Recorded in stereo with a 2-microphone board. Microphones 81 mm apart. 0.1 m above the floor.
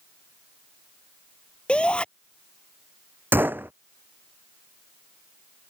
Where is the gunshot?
25° right (ahead or behind).